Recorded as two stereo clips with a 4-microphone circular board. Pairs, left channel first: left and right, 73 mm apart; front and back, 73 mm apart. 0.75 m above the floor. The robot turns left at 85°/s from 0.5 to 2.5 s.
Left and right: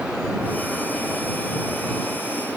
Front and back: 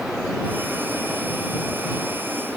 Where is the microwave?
No microwave in this recording.